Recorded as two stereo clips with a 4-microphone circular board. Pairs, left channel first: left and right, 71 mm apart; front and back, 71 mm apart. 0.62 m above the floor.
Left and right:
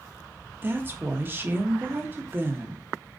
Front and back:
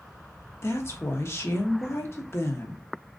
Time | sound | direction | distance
0.6 | a woman speaking | 40° right | 0.9 m